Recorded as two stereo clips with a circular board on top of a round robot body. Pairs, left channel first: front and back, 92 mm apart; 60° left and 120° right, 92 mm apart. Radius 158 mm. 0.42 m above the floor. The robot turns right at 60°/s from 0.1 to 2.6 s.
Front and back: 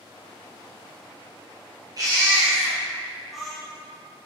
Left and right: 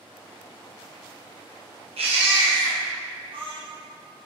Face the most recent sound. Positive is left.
turn(degrees=-90)